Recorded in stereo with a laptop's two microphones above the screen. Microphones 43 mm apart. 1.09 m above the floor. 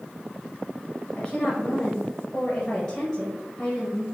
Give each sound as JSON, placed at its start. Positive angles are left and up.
{"t": 1.2, "sound": "a woman speaking", "side_deg": 30, "distance_m": 0.6}